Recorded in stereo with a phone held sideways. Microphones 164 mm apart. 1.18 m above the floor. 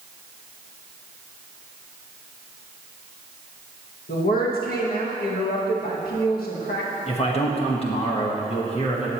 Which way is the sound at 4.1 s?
70° left (ahead or behind).